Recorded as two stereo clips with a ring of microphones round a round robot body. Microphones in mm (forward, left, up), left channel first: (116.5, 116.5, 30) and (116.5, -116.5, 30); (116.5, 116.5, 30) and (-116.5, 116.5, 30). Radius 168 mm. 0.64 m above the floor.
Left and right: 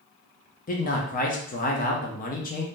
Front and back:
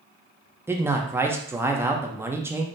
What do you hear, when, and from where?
0.7 s a man speaking: 105° left, 0.6 m